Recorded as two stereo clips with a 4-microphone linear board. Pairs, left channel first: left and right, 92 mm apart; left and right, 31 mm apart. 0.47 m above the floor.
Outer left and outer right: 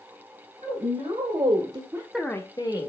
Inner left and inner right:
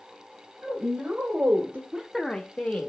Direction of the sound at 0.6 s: 70° right (ahead or behind).